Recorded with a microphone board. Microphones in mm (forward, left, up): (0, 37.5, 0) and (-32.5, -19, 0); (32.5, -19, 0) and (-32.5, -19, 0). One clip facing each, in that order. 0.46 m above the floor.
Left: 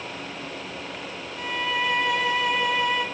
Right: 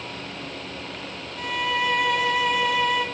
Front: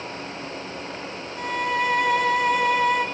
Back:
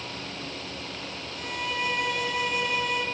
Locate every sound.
1.4 s a violin: 30° right, 2 m